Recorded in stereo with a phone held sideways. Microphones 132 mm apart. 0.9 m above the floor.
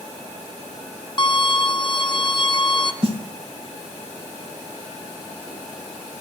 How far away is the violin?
About 0.5 m.